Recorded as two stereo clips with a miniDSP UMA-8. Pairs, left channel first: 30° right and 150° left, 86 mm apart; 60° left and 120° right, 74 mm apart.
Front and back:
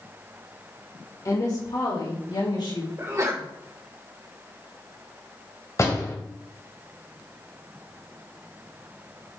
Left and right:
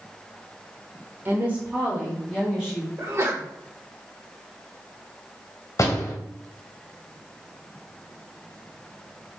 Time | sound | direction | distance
1.2 | a woman speaking | 70° right | 2 m
3.0 | a sneeze | 165° right | 2 m
5.8 | a door slam | 20° left | 2 m